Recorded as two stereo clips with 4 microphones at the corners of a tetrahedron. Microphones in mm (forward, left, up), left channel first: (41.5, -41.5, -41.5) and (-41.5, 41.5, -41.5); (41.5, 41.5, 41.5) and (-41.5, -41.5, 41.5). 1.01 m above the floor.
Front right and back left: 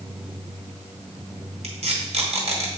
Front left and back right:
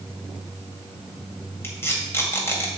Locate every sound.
1.6 s tape being pulled: 115° left, 2 m